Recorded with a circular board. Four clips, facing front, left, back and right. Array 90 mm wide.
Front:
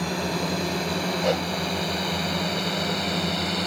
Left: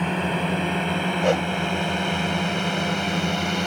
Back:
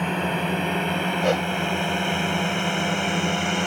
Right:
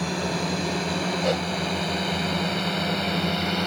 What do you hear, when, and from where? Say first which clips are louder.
0.0 s a drone: left 3 dB, back 2 dB; 130° left; by 3.7 s 160° left
1.2 s a whoosh: left 5 dB, back 2 dB; 115° left